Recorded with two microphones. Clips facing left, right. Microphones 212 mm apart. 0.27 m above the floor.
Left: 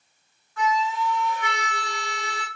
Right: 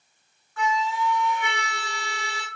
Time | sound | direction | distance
0.6 | a flute | 5° right (ahead or behind) | 2.5 m